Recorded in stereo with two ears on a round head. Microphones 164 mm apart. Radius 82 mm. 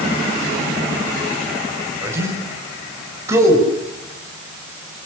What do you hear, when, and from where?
2.0 s a man speaking: 15° right (ahead or behind), 8 m